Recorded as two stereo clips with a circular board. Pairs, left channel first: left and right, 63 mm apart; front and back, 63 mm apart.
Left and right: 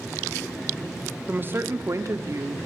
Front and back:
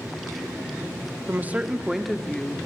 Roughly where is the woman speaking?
Behind right.